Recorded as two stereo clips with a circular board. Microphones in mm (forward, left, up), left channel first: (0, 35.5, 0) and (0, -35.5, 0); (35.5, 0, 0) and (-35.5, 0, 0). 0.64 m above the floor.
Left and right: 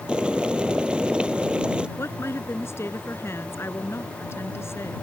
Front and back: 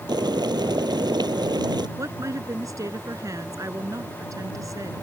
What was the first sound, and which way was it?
Boiling, 170° right.